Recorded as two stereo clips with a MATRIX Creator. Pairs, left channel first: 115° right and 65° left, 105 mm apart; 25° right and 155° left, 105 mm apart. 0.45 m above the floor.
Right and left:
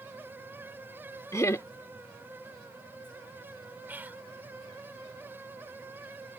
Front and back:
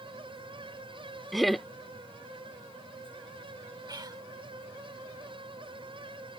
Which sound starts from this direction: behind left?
Whispering, at 3.9 s.